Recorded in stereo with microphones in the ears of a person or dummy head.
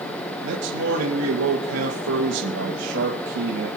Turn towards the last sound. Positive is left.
turn(degrees=-80)